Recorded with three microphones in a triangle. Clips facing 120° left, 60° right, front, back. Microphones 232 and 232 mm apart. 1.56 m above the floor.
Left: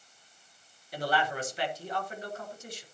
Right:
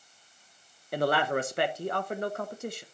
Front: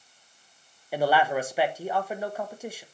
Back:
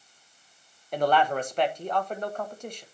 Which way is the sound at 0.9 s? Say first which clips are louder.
Right 5 dB, even; 85° right.